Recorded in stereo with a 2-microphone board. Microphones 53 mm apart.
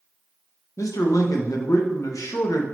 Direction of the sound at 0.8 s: 75° left (ahead or behind).